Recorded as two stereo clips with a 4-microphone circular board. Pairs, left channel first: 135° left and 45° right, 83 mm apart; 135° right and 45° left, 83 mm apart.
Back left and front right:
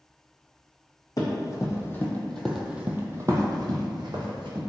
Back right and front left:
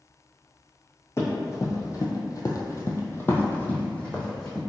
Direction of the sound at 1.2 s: 175° left.